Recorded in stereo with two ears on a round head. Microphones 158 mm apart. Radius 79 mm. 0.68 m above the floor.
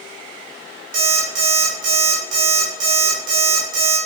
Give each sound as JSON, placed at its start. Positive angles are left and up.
{"t": 0.9, "sound": "an alarm clock", "side_deg": -75, "distance_m": 1.8}